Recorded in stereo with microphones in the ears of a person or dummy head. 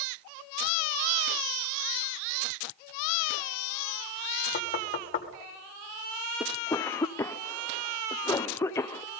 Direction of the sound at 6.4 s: 15° left (ahead or behind).